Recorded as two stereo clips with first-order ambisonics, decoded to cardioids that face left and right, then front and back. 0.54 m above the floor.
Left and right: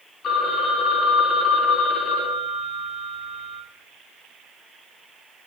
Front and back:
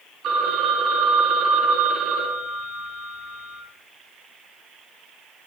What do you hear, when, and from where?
0.2 s a phone ringing: 140° left, 0.6 m